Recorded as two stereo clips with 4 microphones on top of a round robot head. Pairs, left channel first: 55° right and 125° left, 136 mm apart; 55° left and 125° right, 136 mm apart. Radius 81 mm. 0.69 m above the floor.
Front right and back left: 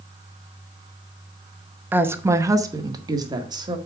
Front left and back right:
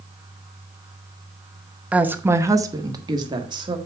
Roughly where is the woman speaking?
Behind.